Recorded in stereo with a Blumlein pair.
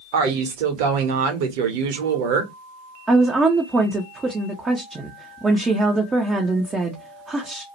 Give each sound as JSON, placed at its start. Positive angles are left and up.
{"t": 0.1, "sound": "a woman speaking", "azimuth_deg": -50, "distance_m": 1.0}
{"t": 3.1, "sound": "a woman speaking", "azimuth_deg": -15, "distance_m": 0.5}